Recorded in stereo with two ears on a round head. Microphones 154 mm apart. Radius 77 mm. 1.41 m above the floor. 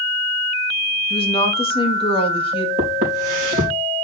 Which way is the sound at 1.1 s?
35° left (ahead or behind).